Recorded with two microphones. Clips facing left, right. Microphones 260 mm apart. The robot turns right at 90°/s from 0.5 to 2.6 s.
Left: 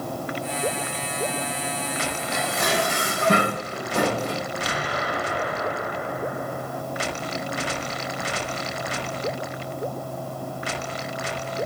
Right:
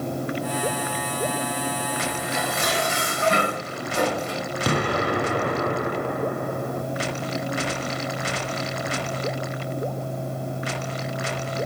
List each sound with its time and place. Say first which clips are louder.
2.3 s dishes clattering: left 3 dB; 80° left, 5.5 m; by 4.4 s 70° left (ahead or behind), 5.5 m
4.7 s an explosion: right 6 dB; 60° right (ahead or behind), 0.7 m